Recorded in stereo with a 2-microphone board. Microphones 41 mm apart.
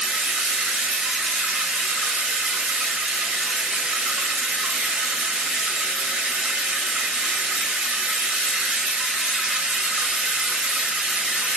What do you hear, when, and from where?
0.0 s running water: 20° right (ahead or behind), 0.7 m